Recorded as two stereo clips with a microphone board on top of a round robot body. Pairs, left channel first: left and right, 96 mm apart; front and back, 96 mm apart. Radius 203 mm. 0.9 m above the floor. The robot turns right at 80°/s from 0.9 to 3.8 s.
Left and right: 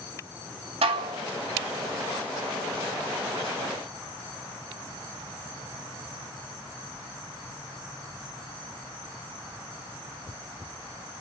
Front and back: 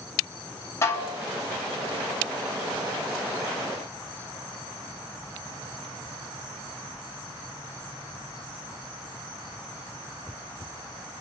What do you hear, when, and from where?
0.8 s dishes clattering: 65° right, 0.6 m; by 1.2 s 40° right, 0.6 m